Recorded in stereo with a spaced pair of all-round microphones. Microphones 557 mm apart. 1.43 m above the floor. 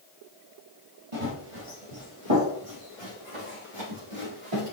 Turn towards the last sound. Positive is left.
turn(degrees=-65)  # may be behind; listen again after turning